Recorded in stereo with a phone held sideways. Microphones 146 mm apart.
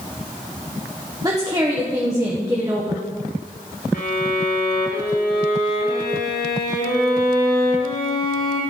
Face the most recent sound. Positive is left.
turn(degrees=80)